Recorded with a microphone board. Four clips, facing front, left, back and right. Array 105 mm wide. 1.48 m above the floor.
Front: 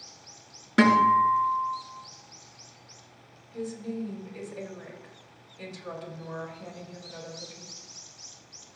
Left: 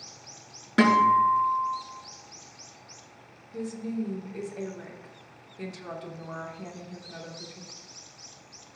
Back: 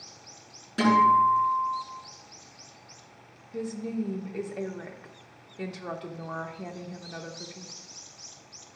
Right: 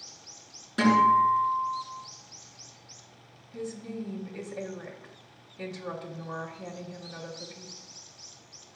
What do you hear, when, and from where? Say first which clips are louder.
0.8 s a guitar: left 1 dB, even; 45° left, 5 m
3.5 s a woman speaking: left 4 dB, back 2 dB; 175° left, 1.6 m